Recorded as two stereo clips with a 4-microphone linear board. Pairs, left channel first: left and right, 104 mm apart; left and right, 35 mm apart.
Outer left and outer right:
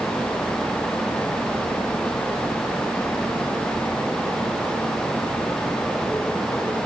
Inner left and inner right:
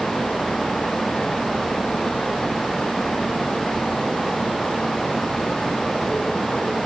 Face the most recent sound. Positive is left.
No sound to turn to.